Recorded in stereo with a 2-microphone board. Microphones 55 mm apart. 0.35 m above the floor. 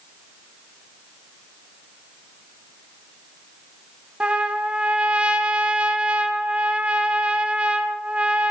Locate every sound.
4.2 s a trumpet: 20° right (ahead or behind), 0.5 m